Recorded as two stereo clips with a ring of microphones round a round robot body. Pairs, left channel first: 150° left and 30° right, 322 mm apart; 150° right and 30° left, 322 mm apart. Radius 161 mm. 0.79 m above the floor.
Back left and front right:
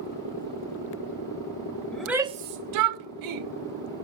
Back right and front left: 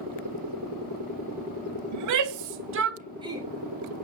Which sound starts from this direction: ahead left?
A shout, at 1.9 s.